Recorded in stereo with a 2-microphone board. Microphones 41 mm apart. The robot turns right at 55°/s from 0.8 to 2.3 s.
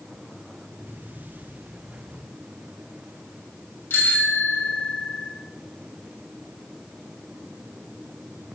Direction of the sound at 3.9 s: 70° left (ahead or behind).